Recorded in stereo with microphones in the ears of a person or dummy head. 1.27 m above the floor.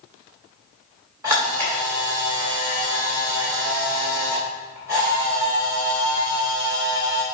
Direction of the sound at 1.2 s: 25° right (ahead or behind).